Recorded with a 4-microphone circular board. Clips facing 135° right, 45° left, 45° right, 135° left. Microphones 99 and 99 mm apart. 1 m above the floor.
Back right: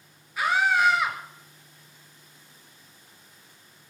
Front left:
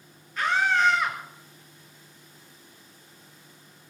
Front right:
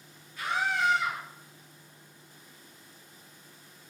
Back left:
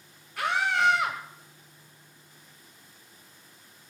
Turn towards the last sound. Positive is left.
turn(degrees=145)